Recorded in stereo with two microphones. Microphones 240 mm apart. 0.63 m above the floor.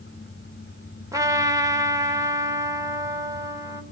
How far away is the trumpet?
About 2.5 m.